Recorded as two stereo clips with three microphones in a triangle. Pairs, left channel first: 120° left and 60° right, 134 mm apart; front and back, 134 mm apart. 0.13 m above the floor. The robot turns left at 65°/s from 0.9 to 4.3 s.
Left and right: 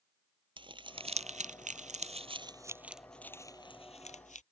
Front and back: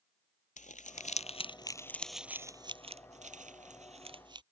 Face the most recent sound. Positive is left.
turn(degrees=130)